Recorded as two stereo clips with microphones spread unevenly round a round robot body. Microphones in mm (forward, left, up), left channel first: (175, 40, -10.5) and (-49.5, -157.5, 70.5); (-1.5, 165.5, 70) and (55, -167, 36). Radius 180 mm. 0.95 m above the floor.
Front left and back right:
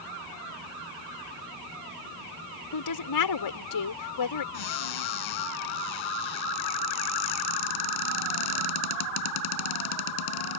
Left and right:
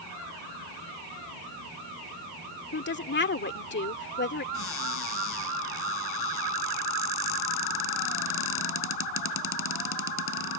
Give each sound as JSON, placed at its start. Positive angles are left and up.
{"t": 2.7, "sound": "a woman speaking", "azimuth_deg": 40}
{"t": 4.5, "sound": "a cupboard door", "azimuth_deg": 50}